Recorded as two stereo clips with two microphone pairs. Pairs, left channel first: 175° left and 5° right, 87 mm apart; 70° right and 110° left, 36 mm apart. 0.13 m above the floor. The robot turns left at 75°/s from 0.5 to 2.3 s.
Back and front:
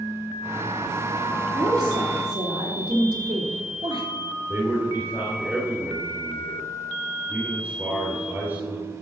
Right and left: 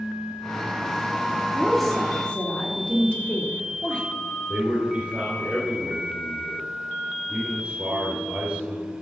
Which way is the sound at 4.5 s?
60° left.